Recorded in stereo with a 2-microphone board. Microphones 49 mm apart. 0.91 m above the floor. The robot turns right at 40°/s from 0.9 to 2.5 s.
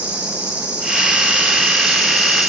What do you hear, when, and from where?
0.0 s an insect: 160° right, 8 m; by 2.5 s 95° right, 8 m